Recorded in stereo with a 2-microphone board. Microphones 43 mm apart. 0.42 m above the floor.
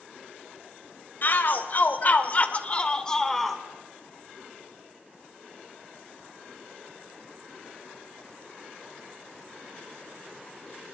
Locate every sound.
1.2 s a shout: 50° left (ahead or behind), 2.5 m; by 3.6 s centre (ahead or behind), 1.8 m